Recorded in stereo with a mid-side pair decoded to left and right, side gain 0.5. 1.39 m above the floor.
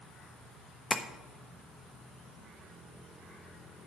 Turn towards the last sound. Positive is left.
turn(degrees=15)